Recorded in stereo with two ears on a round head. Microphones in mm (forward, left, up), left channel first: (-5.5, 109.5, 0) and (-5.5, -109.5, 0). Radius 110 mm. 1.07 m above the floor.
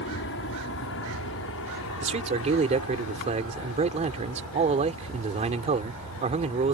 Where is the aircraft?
50° left (ahead or behind); by 6.8 s 70° left (ahead or behind).